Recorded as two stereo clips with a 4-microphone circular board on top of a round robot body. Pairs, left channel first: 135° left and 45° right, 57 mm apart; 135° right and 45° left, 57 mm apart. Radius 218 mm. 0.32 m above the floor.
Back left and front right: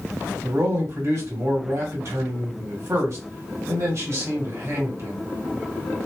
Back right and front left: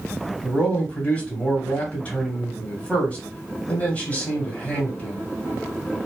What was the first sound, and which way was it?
A man speaking, 70° right.